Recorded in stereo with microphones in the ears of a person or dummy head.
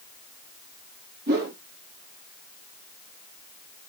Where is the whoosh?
50° right (ahead or behind), 1.9 m.